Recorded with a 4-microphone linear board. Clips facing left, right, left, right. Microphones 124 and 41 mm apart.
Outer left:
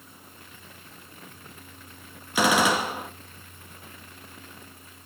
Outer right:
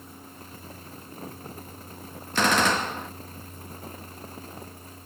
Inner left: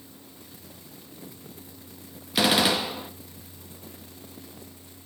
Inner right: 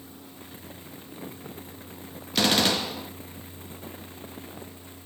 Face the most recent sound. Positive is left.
turn(degrees=10)  # may be behind; listen again after turning